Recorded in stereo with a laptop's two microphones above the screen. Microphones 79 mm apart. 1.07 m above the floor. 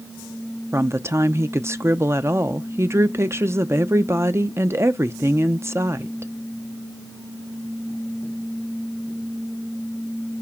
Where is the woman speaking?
35° right (ahead or behind), 0.6 m.